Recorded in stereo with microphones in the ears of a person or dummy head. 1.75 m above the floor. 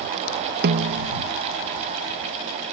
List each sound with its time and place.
0.6 s a snare drum: 55° right (ahead or behind)